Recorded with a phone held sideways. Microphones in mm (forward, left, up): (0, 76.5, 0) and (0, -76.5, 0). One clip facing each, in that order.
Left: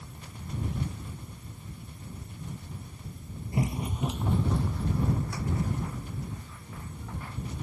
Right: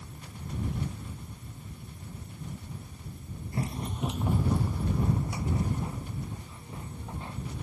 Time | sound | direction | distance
3.5 | running footsteps | 20° left (ahead or behind) | ?